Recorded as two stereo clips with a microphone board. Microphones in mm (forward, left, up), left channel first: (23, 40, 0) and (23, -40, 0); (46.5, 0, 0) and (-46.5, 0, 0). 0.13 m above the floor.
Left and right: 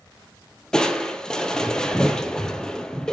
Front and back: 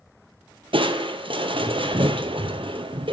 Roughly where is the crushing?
Behind.